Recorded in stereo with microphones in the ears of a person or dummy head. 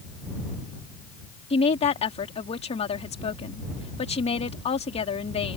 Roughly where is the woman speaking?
Left.